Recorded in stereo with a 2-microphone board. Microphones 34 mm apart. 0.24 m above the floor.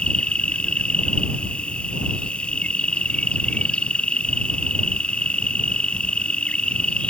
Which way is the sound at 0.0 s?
35° left (ahead or behind).